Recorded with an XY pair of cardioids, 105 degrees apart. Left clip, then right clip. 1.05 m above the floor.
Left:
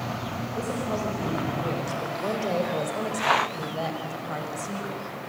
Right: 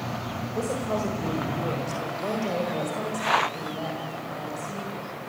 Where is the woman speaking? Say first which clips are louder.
Right 2 dB; 30° right, 4 m; by 5.0 s 50° left, 5 m.